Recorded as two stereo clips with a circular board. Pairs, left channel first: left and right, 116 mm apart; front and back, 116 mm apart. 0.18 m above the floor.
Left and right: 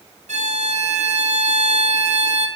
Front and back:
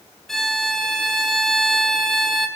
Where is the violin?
85° right, 1.1 m.